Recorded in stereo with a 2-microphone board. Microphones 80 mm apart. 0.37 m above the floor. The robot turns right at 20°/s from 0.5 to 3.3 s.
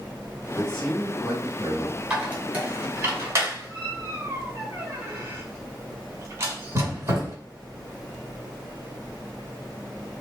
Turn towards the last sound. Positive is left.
turn(degrees=-40)  # may be behind; listen again after turning